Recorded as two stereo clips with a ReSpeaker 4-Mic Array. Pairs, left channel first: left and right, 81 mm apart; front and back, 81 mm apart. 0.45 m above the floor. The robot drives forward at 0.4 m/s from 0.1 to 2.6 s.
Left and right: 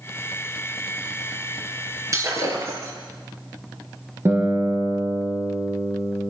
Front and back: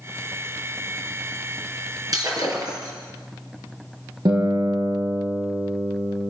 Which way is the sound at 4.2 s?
150° right.